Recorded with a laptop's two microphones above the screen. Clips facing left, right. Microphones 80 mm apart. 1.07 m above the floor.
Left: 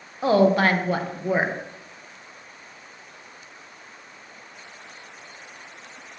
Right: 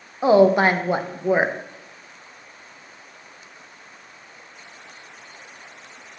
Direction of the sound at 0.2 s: 20° right (ahead or behind).